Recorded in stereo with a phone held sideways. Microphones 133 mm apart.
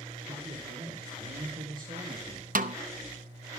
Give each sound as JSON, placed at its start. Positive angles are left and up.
{"t": 0.3, "sound": "a man speaking", "side_deg": -60, "distance_m": 3.5}
{"t": 2.5, "sound": "a snare drum", "side_deg": -75, "distance_m": 0.7}